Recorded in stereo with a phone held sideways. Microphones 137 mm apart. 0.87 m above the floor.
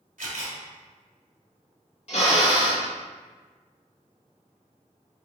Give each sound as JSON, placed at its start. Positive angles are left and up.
{"t": 0.2, "sound": "a camera shutter", "side_deg": -75, "distance_m": 1.3}
{"t": 2.1, "sound": "a drill", "side_deg": 50, "distance_m": 1.2}